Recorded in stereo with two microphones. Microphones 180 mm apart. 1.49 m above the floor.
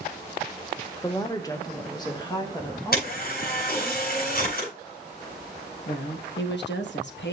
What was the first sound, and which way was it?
A woman speaking, 20° left (ahead or behind).